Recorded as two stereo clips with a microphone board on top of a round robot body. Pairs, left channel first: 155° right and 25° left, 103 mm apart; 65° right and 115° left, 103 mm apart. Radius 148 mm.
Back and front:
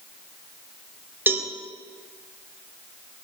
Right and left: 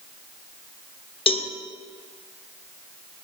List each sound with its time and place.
1.3 s a cowbell: 45° right, 1.1 m